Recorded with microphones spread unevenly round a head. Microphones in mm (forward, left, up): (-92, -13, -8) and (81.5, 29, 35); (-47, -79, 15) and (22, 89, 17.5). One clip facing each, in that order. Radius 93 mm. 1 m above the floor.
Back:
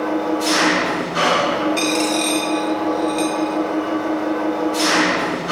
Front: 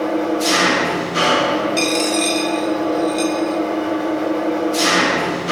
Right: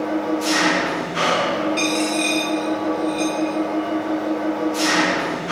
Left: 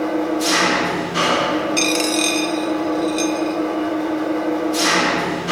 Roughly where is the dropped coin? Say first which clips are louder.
Front 1 dB, left 1 dB; left.